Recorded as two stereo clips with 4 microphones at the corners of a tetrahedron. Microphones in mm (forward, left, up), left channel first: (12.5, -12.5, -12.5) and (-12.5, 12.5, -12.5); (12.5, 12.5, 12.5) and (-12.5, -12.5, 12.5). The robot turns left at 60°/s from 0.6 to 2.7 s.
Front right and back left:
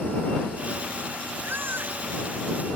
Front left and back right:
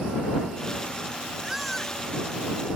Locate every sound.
1.4 s a baby crying: 150° left; by 2.8 s 75° left